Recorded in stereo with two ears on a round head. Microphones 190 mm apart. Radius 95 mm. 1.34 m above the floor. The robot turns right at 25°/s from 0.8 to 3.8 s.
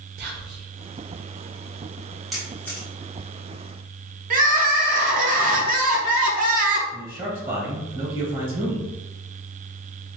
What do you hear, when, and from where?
0.2 s whispering: 50° right (ahead or behind), 0.6 m
2.3 s a camera shutter: centre (ahead or behind), 1.1 m; by 2.9 s 15° left (ahead or behind), 1.1 m
4.3 s crying: 45° right (ahead or behind), 0.6 m
6.9 s a man speaking: 25° right (ahead or behind), 0.8 m